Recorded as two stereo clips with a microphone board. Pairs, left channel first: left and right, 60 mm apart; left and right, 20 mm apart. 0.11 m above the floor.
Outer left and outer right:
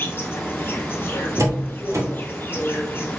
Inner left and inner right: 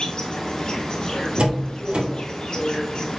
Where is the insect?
35° left (ahead or behind), 0.9 m.